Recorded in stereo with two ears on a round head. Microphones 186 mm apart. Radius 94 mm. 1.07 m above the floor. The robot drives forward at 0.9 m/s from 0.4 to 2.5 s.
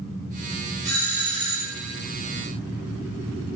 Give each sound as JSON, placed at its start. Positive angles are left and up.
{"t": 0.8, "sound": "a doorbell", "side_deg": -55, "distance_m": 4.0}